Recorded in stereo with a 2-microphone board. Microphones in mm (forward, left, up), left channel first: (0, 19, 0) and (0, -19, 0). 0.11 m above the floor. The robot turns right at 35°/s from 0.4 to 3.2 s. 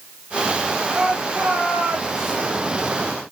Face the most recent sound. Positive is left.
turn(degrees=-80)